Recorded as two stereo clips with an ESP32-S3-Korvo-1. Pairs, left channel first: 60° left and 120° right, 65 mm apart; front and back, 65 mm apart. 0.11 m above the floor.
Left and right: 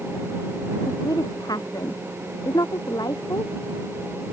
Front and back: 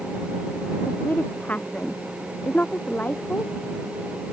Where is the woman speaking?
65° left.